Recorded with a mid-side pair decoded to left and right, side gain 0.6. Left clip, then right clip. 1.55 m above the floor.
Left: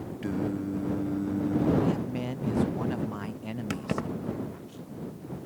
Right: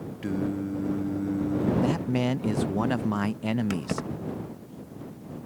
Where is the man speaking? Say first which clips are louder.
Right 4 dB; 50° right.